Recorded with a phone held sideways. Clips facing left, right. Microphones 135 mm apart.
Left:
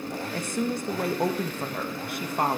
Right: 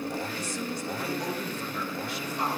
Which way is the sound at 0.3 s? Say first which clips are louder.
Left 5 dB; 55° left (ahead or behind).